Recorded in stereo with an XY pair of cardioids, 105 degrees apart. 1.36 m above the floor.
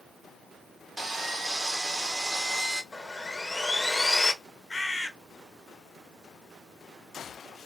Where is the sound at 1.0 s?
15° right, 0.8 m.